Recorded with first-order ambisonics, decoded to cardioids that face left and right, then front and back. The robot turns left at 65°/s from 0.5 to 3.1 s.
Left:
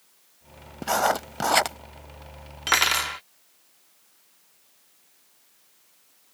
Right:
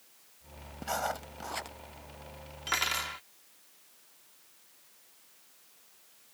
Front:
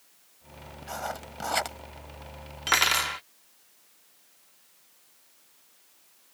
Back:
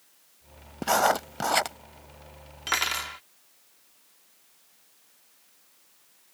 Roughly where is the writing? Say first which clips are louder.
Left 11 dB, back 13 dB; behind left.